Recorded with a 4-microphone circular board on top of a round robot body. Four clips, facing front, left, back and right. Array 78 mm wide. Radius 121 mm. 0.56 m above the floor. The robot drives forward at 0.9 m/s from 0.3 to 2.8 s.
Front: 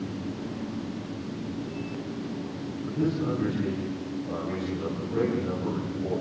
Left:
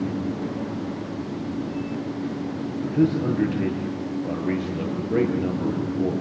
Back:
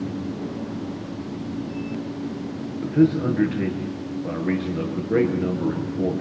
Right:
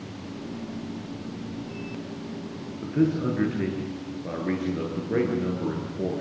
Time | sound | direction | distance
2.8 | a man speaking | 150° right | 9.5 m